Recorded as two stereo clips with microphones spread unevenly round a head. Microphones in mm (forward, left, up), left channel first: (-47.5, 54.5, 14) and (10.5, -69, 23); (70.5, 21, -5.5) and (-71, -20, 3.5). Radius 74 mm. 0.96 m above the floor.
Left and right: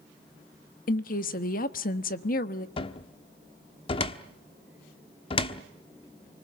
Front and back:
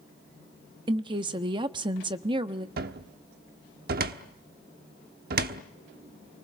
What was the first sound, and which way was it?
A woman speaking, 135° left.